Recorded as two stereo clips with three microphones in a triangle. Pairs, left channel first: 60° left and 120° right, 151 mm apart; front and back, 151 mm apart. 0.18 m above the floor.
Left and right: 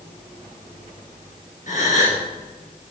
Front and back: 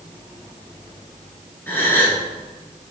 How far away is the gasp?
About 3 m.